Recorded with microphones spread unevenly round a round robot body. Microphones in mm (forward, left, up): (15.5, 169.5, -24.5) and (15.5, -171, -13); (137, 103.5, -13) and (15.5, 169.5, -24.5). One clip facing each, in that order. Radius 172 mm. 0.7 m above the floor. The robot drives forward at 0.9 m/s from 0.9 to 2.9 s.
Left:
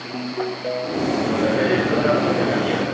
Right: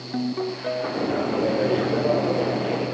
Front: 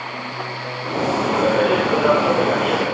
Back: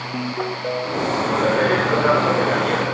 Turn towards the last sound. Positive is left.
turn(degrees=-150)